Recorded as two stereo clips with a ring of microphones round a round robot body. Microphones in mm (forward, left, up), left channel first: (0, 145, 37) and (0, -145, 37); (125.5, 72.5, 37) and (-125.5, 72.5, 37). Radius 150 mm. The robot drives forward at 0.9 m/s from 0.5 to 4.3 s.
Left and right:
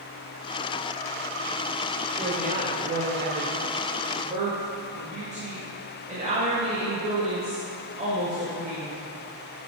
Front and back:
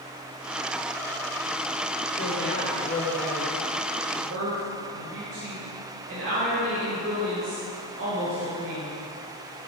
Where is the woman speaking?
30° right, 1.3 m; by 8.9 s 155° right, 1.3 m.